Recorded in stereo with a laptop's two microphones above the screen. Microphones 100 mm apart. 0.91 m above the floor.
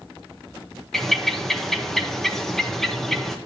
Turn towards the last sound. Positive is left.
turn(degrees=5)  # may be behind; listen again after turning